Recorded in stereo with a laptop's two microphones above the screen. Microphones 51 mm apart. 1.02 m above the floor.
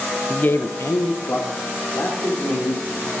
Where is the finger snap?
I don't hear a finger snap.